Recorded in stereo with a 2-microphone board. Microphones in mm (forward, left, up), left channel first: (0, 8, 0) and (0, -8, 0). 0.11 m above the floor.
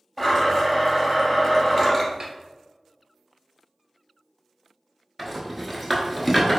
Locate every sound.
0.2 s a blender: 5° left (ahead or behind), 1.9 m
2.2 s a snare drum: 50° right (ahead or behind), 1.2 m
5.2 s a rattle: 5° right (ahead or behind), 0.8 m